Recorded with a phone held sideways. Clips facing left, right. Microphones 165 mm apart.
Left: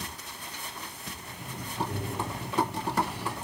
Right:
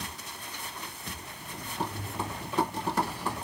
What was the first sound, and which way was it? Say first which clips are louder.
Breathing: left 2 dB; 70° left (ahead or behind).